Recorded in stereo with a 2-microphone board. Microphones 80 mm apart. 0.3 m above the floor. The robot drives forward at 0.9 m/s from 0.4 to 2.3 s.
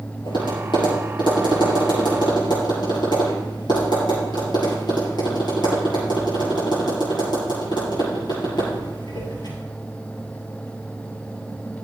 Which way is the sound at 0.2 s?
75° left (ahead or behind).